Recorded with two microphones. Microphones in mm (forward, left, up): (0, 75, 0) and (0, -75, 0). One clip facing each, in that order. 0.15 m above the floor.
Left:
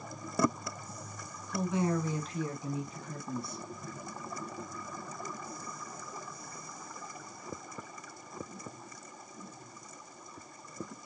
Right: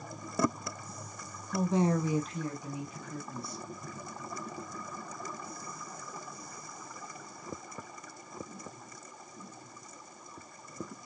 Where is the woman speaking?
45° right (ahead or behind), 1.3 m; by 3.6 s 55° left (ahead or behind), 2.0 m.